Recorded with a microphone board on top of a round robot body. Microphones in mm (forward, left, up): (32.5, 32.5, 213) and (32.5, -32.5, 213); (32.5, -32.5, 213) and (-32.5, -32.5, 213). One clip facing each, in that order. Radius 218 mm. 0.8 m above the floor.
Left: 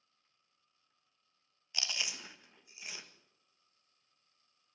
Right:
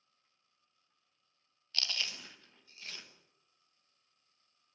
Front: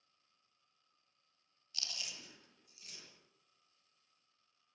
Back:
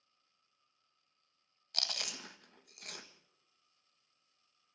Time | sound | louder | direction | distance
1.7 | chewing | even, back 6 dB | 165° left | 1.6 m